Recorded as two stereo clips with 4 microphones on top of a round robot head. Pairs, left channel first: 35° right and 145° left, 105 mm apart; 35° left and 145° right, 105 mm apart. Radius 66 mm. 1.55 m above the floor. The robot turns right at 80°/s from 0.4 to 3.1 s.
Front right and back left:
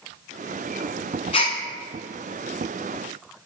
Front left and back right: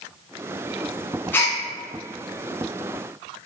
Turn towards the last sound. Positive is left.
turn(degrees=110)